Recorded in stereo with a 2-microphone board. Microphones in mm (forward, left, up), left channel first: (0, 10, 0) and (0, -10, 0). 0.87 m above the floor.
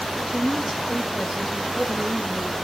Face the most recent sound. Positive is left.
turn(degrees=-40)  # may be behind; listen again after turning